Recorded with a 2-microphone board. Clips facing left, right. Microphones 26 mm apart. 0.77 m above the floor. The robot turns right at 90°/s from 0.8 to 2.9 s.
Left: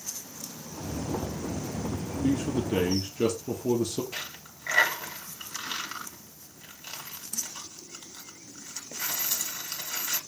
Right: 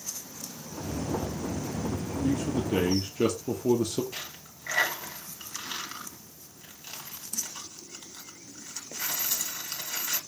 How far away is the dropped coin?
About 2.5 m.